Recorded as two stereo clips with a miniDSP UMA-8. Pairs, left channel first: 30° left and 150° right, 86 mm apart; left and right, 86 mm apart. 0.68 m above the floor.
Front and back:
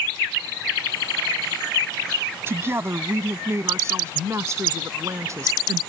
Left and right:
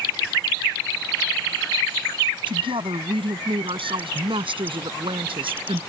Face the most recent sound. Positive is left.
turn(degrees=-95)